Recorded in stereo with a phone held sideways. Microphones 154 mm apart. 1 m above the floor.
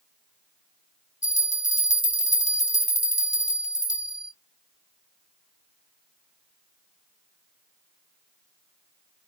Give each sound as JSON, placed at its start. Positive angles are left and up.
{"t": 1.2, "sound": "a bell", "side_deg": 50, "distance_m": 1.1}